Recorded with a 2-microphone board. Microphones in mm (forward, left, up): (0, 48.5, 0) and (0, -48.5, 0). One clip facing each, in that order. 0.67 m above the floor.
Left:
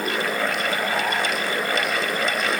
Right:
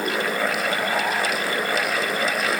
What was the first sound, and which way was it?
Only background noise.